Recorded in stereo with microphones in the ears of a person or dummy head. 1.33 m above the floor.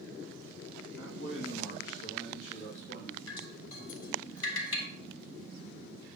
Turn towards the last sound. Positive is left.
turn(degrees=75)  # may be behind; listen again after turning